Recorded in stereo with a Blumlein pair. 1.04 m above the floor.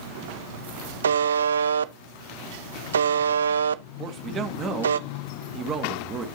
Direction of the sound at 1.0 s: 70° right.